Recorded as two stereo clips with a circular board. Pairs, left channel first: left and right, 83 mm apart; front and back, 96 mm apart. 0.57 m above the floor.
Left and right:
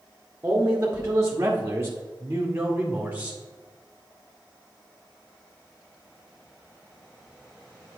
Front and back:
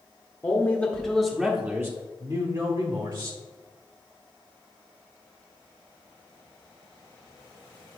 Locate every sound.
0.4 s a man speaking: 50° right, 1.0 m; by 3.4 s 160° right, 1.7 m